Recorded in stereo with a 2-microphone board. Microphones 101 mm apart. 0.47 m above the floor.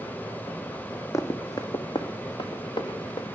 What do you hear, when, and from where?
1.1 s running footsteps: 30° left (ahead or behind), 1.6 m; by 3.2 s 50° left (ahead or behind), 3.5 m